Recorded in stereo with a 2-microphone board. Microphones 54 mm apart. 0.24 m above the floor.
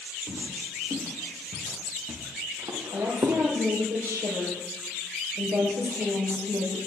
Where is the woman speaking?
65° right (ahead or behind), 7.5 m.